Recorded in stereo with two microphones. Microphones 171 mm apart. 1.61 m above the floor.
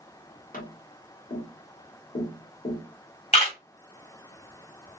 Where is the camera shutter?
35° left (ahead or behind), 1.5 m.